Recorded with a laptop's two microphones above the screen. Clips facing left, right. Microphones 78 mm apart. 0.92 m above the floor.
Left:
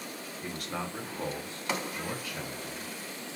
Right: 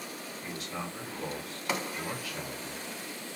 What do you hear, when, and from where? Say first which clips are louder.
0.4 s a man speaking: left 3 dB; 55° left (ahead or behind), 1.0 m; by 2.9 s 15° right (ahead or behind), 1.4 m